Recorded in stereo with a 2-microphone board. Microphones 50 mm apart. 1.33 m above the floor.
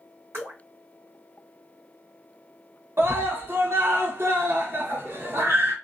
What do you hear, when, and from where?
0.3 s dripping: 55° right (ahead or behind), 1.7 m
3.0 s a scream: 50° right (ahead or behind), 1.0 m